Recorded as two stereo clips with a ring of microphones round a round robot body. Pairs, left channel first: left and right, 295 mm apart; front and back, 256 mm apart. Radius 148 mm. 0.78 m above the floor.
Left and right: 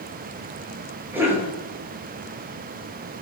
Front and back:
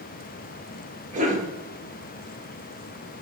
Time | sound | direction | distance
1.1 | a cough | 165° right | 0.9 m